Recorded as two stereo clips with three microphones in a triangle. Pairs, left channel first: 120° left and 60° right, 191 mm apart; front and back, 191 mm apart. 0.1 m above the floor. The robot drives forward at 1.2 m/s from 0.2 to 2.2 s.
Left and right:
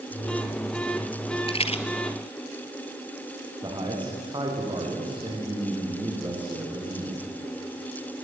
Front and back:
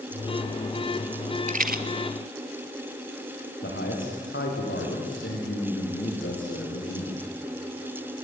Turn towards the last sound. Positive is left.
turn(degrees=5)